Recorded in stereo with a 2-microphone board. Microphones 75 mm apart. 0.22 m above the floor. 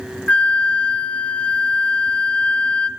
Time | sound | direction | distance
0.3 | a flute | 15° left (ahead or behind) | 0.7 m